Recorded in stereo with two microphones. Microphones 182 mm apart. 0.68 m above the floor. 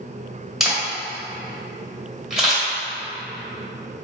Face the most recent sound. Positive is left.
turn(degrees=0)  # may be behind; listen again after turning